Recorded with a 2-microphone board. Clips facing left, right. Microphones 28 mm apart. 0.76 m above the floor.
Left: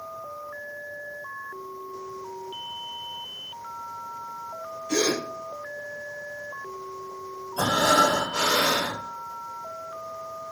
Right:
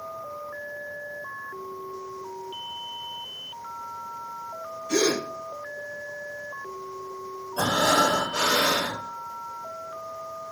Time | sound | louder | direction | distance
4.9 | a gasp | right 1 dB | 5° left (ahead or behind) | 1.7 m
7.6 | breathing | left 1 dB | 20° right (ahead or behind) | 1.5 m